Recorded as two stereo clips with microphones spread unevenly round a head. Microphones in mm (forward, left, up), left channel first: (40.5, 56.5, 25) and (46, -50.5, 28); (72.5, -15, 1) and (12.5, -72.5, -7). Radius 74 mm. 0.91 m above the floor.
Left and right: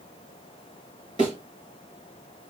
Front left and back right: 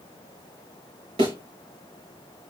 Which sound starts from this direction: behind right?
A thud, at 1.2 s.